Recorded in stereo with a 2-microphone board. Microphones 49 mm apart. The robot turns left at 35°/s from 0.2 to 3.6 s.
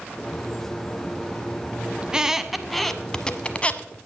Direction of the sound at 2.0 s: 20° right (ahead or behind).